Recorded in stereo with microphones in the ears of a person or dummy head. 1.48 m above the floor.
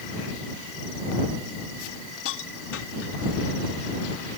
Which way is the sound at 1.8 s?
70° left (ahead or behind).